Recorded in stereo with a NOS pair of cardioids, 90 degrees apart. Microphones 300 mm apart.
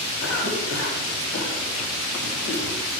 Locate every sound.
0.2 s a cough: 55° left, 6 m